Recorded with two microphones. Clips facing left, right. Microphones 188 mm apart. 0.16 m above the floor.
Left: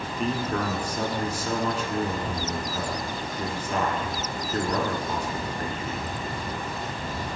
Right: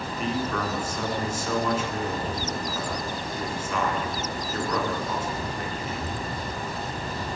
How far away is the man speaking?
About 1.8 m.